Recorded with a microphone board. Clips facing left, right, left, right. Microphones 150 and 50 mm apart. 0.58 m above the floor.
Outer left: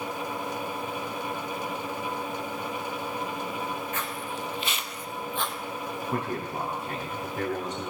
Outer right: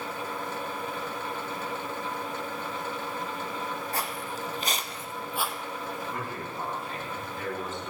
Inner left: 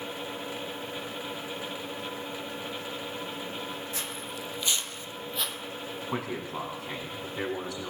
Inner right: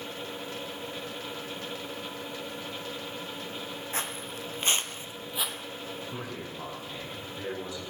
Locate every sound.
3.9 s footsteps: 35° right (ahead or behind), 1.3 m; by 5.6 s 5° right (ahead or behind), 1.0 m
6.1 s a man speaking: 80° left, 5 m